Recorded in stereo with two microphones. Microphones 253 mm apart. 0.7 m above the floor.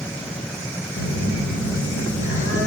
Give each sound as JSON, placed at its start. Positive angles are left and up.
{"t": 1.0, "sound": "a phone buzzing", "side_deg": -80, "distance_m": 1.8}